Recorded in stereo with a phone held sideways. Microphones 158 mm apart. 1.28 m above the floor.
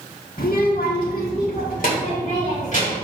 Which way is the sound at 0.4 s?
65° left (ahead or behind).